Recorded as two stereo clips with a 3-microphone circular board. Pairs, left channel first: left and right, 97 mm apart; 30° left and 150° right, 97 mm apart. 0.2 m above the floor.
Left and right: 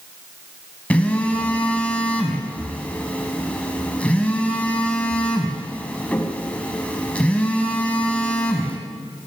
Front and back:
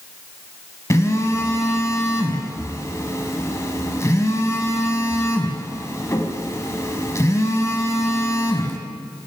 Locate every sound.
0.9 s a phone buzzing: 30° left, 1.2 m